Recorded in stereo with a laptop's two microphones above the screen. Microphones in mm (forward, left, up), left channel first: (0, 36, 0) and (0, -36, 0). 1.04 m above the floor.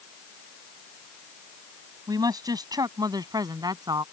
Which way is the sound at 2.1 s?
60° right (ahead or behind).